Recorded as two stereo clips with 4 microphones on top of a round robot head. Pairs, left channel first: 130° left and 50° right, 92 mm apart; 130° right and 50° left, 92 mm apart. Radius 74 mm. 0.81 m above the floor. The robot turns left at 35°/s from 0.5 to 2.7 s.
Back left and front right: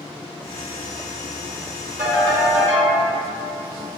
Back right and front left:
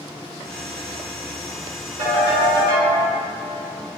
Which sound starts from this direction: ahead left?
A ringtone, at 2.0 s.